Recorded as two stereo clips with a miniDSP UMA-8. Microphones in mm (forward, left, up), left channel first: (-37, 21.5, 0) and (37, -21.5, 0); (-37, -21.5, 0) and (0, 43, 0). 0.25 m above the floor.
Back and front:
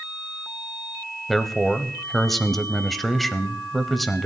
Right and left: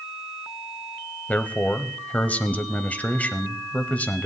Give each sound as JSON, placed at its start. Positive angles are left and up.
{"t": 1.3, "sound": "a man speaking", "azimuth_deg": -125, "distance_m": 1.0}